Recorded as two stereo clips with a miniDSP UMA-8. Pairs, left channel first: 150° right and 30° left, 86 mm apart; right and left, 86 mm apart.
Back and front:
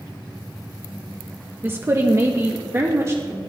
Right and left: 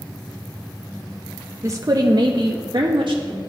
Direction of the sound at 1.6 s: 75° left.